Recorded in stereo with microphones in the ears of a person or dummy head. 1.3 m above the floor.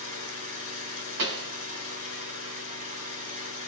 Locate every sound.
0.0 s an engine running: 40° right (ahead or behind), 4.5 m
1.2 s a pop: 60° right (ahead or behind), 1.8 m